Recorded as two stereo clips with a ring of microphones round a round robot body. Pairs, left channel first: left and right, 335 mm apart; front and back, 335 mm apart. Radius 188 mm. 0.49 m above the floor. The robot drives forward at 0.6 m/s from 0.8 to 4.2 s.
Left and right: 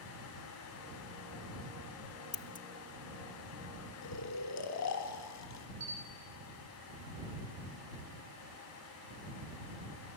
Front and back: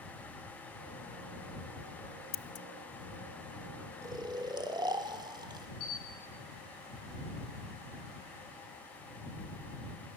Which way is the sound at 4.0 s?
100° left.